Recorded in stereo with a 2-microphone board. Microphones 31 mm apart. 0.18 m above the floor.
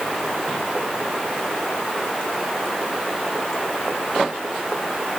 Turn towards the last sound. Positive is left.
No sound to turn to.